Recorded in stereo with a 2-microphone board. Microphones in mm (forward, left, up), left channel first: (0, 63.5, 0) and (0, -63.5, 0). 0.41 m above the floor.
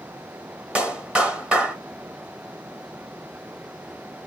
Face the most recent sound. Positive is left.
turn(degrees=-10)  # may be behind; listen again after turning